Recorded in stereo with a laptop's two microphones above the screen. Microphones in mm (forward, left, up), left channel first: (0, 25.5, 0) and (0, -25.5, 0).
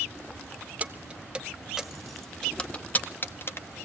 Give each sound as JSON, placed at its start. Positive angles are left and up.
{"t": 0.8, "sound": "keys jangling", "side_deg": -30, "distance_m": 1.6}